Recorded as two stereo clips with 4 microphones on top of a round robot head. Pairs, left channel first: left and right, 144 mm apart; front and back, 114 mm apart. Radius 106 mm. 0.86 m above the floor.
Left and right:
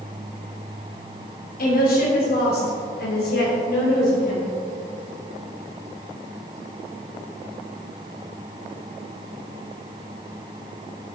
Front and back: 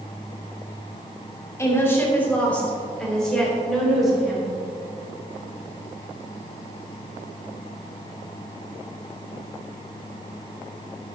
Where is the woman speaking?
65° left, 2.5 m; by 4.5 s 95° left, 4.5 m.